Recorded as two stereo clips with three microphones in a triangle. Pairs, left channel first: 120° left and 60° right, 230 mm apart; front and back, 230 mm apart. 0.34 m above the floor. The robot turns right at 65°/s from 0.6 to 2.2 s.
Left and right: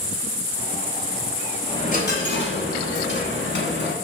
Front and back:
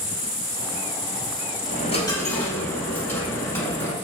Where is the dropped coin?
45° left, 0.8 m; by 3.9 s 80° left, 0.8 m.